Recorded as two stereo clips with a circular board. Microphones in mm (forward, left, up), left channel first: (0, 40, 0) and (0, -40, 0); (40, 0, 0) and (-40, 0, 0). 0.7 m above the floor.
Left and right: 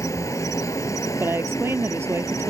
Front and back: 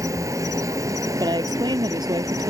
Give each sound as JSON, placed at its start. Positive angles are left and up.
{"t": 0.0, "sound": "an insect", "azimuth_deg": 135}
{"t": 1.2, "sound": "a woman speaking", "azimuth_deg": -150}